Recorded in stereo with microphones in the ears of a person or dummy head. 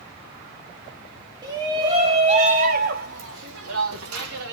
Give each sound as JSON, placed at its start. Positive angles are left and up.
{"t": 1.4, "sound": "a shout", "side_deg": -20, "distance_m": 2.5}